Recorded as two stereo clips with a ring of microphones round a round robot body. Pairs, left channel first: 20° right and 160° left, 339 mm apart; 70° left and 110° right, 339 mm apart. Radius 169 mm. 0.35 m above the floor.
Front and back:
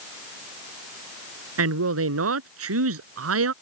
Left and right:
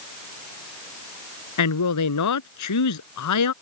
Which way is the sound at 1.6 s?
105° left.